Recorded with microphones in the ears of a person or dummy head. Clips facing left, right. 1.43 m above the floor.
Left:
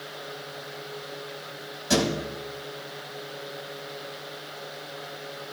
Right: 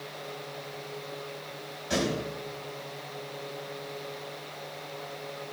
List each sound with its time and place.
1.9 s a thud: 75° left (ahead or behind), 3.5 m